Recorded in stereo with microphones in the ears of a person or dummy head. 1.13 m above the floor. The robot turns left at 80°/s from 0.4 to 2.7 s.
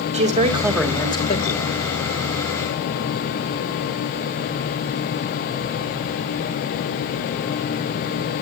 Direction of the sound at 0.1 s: 145° right.